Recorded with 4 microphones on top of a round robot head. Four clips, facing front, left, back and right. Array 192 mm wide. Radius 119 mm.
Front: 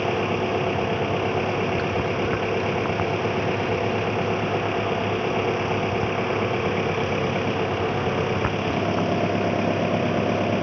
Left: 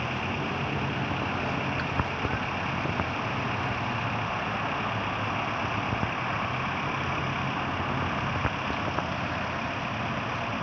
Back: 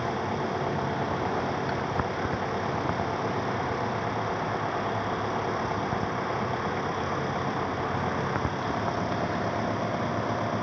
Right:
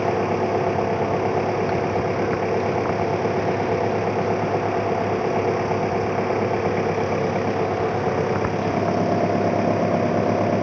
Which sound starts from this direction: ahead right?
An engine running, at 0.0 s.